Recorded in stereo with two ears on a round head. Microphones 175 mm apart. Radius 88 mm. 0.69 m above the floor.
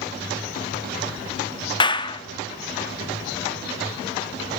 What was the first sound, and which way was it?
A clap, 25° left (ahead or behind).